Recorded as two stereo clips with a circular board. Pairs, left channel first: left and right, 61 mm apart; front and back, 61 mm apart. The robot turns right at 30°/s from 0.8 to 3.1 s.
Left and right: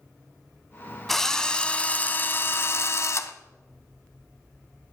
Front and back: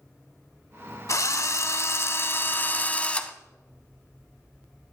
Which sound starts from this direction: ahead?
A drill, at 1.1 s.